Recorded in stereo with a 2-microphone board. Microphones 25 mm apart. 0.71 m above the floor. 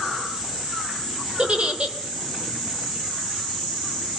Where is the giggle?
50° right (ahead or behind), 3 m.